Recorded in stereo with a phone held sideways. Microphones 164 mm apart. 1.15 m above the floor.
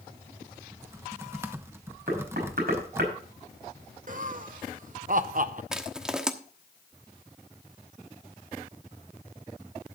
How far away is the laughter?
About 0.7 m.